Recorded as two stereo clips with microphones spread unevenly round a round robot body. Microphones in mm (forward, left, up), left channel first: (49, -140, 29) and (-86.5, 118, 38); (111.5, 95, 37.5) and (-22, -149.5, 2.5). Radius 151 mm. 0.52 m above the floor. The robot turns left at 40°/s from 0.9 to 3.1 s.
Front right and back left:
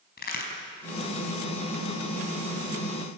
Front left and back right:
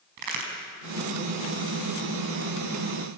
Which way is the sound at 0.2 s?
120° right.